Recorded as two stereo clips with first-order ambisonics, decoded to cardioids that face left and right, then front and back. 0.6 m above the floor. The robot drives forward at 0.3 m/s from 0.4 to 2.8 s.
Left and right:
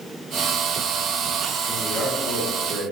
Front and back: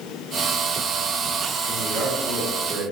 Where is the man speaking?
105° left, 2 m; by 2.8 s 115° left, 2 m.